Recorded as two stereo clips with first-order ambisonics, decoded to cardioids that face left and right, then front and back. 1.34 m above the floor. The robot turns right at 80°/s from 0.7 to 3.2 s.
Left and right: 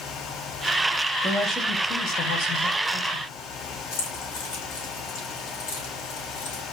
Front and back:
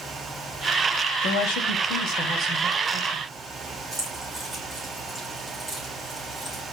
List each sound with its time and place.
1.2 s a woman speaking: 15° right, 3 m; by 3.2 s 145° left, 3 m
3.9 s keys jangling: 100° left, 7 m